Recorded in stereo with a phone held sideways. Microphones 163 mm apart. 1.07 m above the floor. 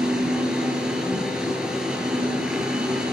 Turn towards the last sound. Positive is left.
turn(degrees=-5)  # may be behind; listen again after turning